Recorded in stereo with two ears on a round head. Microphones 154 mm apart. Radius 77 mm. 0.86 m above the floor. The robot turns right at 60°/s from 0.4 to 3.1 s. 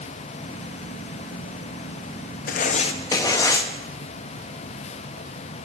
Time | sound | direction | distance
2.5 | writing | 120° left | 0.7 m